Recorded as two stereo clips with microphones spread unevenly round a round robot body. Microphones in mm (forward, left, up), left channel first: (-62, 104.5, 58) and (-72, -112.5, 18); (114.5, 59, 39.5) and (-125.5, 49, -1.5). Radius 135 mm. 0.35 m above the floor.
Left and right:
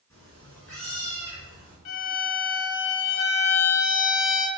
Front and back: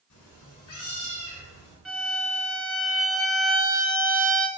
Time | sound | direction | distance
0.1 | a cat meowing | 5° left | 1.9 m
1.9 | a violin | 90° left | 0.9 m